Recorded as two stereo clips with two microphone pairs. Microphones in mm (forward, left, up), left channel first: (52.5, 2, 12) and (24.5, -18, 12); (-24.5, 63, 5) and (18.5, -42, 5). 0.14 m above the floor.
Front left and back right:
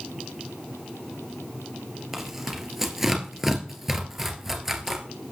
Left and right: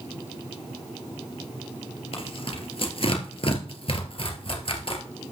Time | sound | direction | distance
2.1 | tearing paper | 140° left | 2.5 m